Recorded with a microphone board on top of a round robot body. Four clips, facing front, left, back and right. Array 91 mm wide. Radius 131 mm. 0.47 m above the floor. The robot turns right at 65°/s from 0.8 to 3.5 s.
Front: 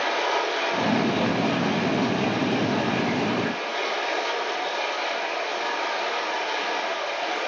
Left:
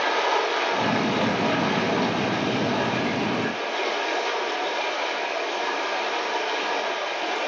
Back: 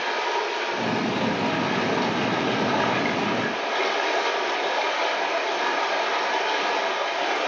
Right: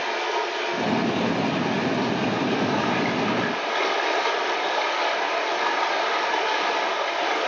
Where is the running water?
60° left, 0.8 m; by 7.5 s 125° right, 0.8 m.